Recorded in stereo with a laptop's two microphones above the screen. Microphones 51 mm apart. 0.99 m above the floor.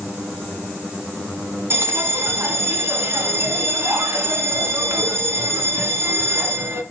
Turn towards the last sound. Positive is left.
turn(degrees=-55)  # may be behind; listen again after turning